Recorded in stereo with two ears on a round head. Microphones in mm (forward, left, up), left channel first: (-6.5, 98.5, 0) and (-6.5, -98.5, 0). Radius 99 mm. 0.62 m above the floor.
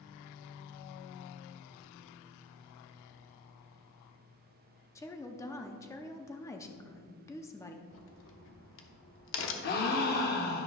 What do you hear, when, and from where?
5.0 s a woman speaking: 15° left (ahead or behind), 0.6 m
7.9 s a crack: 55° left (ahead or behind), 0.9 m
9.6 s a gasp: 40° left (ahead or behind), 0.8 m